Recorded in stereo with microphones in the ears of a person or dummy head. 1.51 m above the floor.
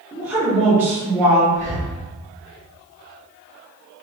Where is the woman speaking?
10° right (ahead or behind), 1.2 m.